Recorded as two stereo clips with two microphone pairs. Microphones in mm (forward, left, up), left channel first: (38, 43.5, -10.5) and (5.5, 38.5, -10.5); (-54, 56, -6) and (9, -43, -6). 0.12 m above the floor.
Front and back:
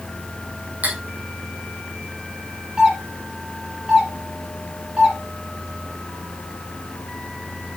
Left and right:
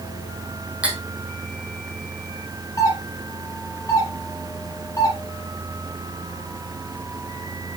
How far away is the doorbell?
About 1.7 m.